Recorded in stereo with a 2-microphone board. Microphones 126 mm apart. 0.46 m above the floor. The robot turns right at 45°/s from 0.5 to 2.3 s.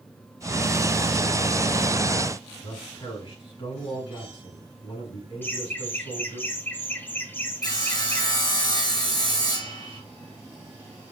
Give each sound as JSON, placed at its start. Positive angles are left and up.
{"t": 2.6, "sound": "a man speaking", "side_deg": 45, "distance_m": 4.0}
{"t": 5.4, "sound": "laughter", "side_deg": 15, "distance_m": 1.4}
{"t": 7.6, "sound": "sawing", "side_deg": 30, "distance_m": 2.5}